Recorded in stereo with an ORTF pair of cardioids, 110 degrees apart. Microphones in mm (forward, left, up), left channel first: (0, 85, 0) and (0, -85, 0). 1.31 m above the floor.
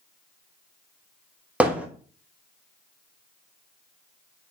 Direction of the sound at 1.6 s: 10° right.